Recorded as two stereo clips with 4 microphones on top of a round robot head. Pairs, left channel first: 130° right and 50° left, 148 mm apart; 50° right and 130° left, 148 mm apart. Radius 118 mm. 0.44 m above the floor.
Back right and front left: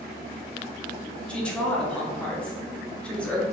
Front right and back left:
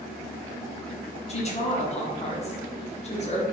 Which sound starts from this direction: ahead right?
A woman speaking, at 1.3 s.